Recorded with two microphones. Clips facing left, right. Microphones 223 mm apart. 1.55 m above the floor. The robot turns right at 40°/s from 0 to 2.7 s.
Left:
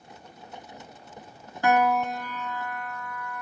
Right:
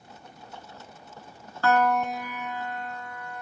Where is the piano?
165° left; by 3.4 s 155° right.